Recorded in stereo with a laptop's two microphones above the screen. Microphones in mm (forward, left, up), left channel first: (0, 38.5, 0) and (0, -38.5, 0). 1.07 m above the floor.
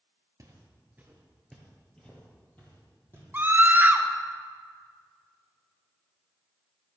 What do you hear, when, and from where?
0.4 s footsteps: 40° right (ahead or behind), 1.3 m; by 3.2 s 25° left (ahead or behind), 3 m
3.3 s a scream: 25° right (ahead or behind), 0.9 m